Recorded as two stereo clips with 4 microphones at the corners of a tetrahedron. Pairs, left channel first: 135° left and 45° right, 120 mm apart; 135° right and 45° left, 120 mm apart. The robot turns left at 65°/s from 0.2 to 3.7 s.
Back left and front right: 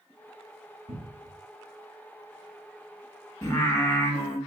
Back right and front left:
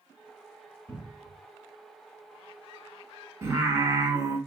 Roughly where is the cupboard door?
Ahead right.